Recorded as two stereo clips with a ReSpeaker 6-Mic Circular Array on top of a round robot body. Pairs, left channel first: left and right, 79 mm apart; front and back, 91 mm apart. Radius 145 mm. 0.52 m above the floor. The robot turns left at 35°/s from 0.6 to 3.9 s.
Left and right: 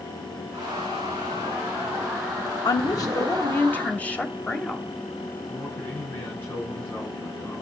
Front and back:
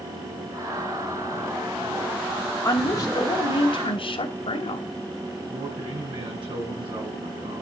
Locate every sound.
2.6 s a woman speaking: 60° left, 3 m; by 4.9 s 20° left, 3 m
5.5 s a man speaking: 155° left, 6.5 m